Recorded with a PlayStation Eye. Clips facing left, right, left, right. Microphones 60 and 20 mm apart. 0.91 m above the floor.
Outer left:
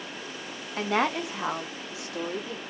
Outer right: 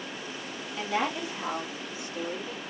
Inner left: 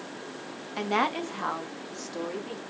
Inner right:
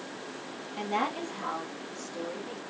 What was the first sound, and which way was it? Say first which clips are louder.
A woman speaking: outer left 4 dB, inner left 4 dB; 50° left (ahead or behind).